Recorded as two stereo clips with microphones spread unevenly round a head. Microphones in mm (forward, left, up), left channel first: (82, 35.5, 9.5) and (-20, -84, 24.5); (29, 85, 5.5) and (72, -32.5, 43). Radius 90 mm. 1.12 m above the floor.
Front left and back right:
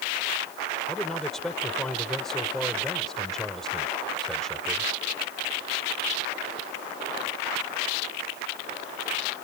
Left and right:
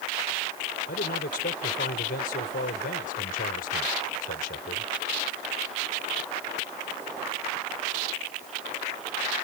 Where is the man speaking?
140° left.